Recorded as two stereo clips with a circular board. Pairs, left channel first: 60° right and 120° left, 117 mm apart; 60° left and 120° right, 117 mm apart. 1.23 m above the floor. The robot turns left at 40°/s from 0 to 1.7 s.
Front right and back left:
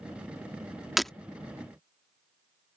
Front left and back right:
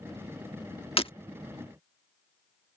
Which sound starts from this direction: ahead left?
Breaking glass, at 1.0 s.